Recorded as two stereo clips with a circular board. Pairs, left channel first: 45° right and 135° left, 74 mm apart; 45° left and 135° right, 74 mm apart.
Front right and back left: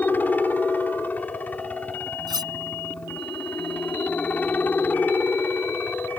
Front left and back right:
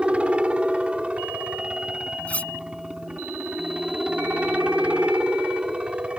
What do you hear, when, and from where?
0.0 s a helicopter: 80° right
2.3 s cutlery clinking: 115° left